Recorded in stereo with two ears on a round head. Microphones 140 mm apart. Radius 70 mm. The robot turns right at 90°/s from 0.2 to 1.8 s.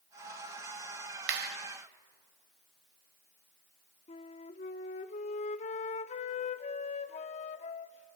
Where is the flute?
45° left (ahead or behind), 0.6 m.